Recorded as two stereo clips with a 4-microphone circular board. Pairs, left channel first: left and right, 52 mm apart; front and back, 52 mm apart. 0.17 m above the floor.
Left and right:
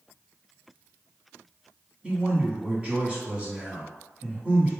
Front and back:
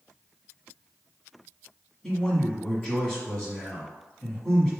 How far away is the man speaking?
About 1.3 m.